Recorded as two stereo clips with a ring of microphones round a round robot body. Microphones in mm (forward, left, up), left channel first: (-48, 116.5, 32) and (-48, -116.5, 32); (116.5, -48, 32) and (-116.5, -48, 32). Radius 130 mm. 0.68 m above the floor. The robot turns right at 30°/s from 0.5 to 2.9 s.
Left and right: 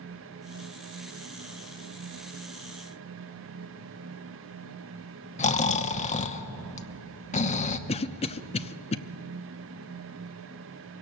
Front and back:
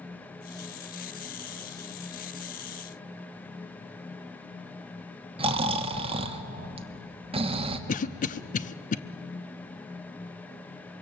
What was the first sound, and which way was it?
Snoring, 130° left.